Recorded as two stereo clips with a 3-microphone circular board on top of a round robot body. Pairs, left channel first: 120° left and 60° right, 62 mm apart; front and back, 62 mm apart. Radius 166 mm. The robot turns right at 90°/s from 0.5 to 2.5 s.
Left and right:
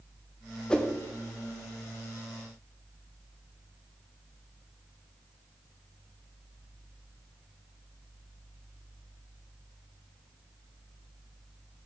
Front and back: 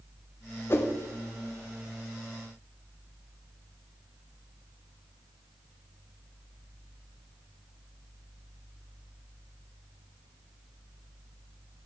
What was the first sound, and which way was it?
A whoosh, 45° left.